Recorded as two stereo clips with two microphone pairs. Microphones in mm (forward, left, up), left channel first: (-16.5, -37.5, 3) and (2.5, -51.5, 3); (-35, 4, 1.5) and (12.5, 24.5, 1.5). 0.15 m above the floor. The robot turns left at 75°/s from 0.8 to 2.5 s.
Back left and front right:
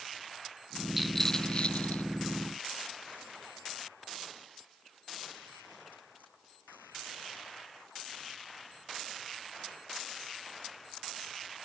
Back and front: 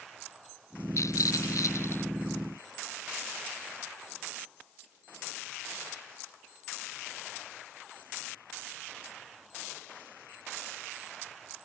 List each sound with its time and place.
1.0 s a rattle: 125° right; by 2.0 s 155° left